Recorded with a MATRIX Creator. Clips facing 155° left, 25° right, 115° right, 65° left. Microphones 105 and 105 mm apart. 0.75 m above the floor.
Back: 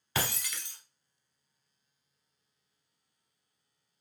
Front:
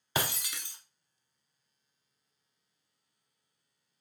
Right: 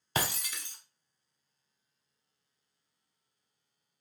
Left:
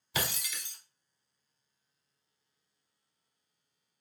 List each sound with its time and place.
0.1 s breaking glass: 85° right, 0.8 m